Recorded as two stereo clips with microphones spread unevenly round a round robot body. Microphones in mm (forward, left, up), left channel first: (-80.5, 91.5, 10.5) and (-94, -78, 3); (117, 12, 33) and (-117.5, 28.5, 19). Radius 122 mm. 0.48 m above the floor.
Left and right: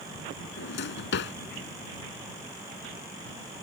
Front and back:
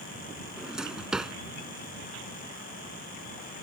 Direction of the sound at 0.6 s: 90° left.